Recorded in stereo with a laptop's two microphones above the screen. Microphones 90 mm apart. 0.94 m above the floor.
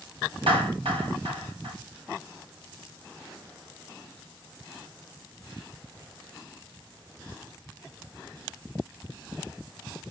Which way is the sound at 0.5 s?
80° right.